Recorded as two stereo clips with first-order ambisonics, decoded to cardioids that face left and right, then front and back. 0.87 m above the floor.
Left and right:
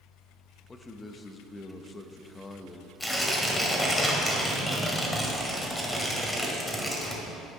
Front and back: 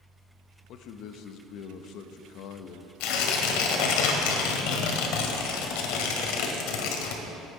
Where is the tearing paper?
5° left, 1.7 m.